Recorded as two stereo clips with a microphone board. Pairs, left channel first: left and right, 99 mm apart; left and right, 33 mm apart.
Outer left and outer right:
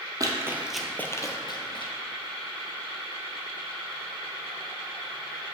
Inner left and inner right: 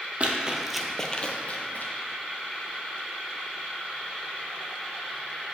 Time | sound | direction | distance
0.2 | running footsteps | 40° right (ahead or behind) | 0.9 m